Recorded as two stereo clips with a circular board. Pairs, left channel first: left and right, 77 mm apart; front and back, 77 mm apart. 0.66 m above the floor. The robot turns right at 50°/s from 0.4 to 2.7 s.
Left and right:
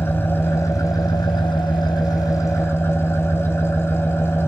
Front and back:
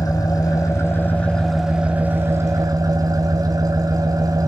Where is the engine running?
30° left, 2.5 m; by 4.5 s 145° left, 2.5 m.